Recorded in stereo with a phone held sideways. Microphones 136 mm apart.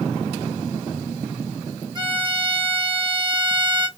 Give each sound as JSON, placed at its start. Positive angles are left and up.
{"t": 1.9, "sound": "a violin", "side_deg": -35, "distance_m": 1.3}